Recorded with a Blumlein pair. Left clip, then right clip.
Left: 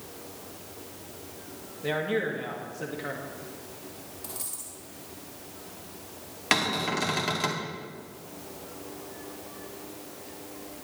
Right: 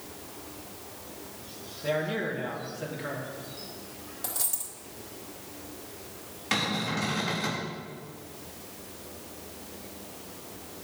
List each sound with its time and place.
1.8 s a man speaking: 10° left, 1.9 m
4.2 s a dropped coin: 60° right, 3 m
6.5 s a cupboard door: 30° left, 2.0 m